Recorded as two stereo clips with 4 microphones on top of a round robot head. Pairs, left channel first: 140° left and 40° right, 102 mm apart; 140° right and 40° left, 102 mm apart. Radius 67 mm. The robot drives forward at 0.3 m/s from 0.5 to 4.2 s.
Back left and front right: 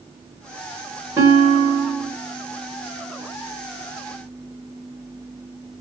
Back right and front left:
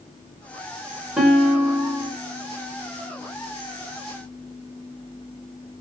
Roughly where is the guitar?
Ahead right.